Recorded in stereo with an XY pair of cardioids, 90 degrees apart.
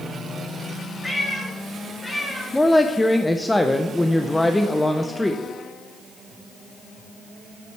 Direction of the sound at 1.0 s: 20° left.